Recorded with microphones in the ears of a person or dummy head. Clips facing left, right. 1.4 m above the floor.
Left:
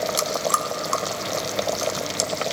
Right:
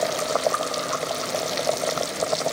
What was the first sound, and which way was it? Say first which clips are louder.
Chewing: right 2 dB; 55° left (ahead or behind).